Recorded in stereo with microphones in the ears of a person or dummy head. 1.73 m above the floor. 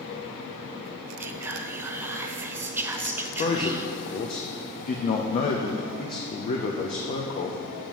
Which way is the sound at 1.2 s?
15° right (ahead or behind).